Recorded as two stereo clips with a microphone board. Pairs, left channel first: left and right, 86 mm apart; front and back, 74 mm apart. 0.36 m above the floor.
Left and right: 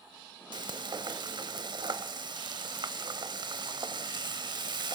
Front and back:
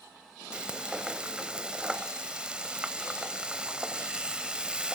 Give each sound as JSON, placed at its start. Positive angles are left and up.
{"t": 0.5, "sound": "frying", "azimuth_deg": -105, "distance_m": 0.8}